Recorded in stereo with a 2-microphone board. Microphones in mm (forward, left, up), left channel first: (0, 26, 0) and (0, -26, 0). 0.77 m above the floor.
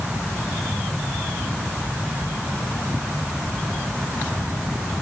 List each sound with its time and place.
Only background noise.